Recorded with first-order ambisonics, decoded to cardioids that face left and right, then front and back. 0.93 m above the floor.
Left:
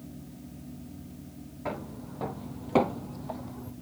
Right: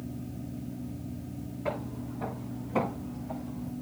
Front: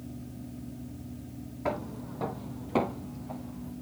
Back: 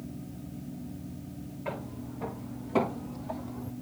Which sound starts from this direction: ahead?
Footsteps, at 1.6 s.